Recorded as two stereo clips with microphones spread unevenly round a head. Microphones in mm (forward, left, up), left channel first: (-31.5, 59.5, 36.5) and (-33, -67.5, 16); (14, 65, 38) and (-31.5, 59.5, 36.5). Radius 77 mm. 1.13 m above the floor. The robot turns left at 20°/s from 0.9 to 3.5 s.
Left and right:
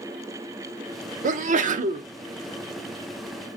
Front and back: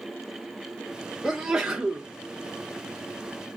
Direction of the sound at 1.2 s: 85° right.